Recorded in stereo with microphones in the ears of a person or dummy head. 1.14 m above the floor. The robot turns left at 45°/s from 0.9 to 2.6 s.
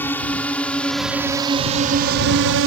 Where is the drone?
10° left (ahead or behind); by 2.7 s 60° right (ahead or behind).